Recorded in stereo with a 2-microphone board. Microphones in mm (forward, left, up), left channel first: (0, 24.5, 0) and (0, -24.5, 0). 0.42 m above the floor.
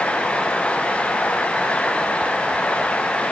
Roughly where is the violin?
I don't hear a violin.